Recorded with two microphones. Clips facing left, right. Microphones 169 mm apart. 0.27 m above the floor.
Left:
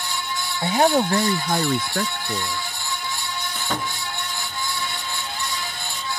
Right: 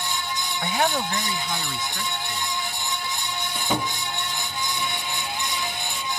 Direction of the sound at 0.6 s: 25° left (ahead or behind).